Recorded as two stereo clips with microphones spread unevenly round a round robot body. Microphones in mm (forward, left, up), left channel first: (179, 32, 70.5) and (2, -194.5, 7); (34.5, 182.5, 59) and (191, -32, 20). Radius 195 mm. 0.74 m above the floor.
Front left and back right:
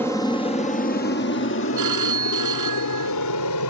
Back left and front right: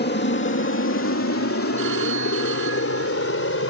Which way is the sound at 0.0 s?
150° left.